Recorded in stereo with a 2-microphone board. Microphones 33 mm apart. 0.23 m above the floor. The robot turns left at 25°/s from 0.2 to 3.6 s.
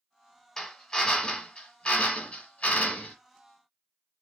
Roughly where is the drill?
Behind left.